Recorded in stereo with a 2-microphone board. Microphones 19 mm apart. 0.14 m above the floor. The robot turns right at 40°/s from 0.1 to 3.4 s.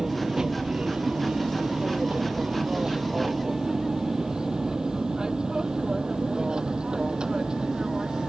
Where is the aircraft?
25° right (ahead or behind); by 8.3 s 45° right (ahead or behind).